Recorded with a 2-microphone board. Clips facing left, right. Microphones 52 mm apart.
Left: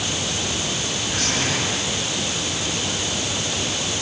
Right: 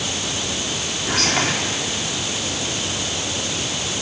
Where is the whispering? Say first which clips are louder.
Right 5 dB; 80° right, 3.5 m.